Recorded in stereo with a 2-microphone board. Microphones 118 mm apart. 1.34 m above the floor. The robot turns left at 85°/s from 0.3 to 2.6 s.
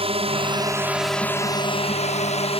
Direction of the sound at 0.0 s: 55° right (ahead or behind).